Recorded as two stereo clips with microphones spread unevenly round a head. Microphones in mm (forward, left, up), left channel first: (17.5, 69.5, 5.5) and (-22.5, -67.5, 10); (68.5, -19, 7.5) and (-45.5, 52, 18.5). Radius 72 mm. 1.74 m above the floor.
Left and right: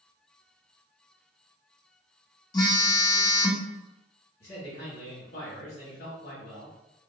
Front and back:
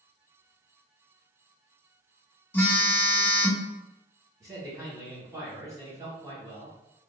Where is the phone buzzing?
40° left, 0.6 m.